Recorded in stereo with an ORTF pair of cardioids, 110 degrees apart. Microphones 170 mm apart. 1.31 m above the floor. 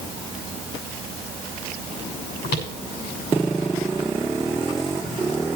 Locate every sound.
2.4 s footsteps: 70° left, 7 m